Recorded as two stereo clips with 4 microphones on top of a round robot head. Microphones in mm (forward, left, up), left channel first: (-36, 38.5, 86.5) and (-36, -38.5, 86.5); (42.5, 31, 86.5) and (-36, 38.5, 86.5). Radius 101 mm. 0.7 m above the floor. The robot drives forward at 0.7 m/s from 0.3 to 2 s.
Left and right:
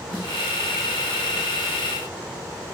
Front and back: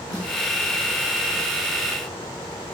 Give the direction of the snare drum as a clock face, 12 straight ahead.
11 o'clock.